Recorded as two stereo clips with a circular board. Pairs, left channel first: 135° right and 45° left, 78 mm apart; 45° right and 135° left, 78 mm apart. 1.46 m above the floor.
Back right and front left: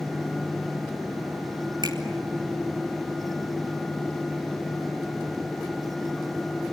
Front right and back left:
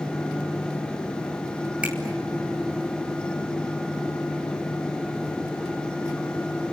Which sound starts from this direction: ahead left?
A finger snap, at 1.8 s.